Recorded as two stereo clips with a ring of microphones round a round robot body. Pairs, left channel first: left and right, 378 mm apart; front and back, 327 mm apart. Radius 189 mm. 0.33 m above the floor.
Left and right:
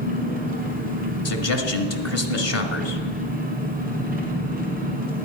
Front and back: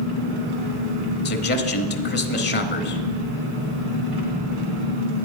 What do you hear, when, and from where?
0.0 s an engine running: 155° right, 2 m
1.2 s a man speaking: 50° left, 1.4 m